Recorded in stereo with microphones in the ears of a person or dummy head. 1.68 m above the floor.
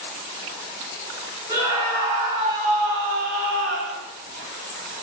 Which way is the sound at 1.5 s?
25° right (ahead or behind).